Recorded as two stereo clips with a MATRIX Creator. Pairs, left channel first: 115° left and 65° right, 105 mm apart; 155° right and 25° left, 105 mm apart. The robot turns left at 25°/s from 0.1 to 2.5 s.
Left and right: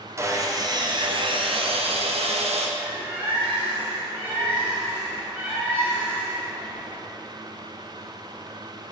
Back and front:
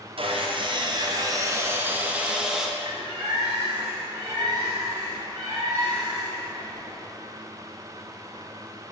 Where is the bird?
Straight ahead, 1.7 m.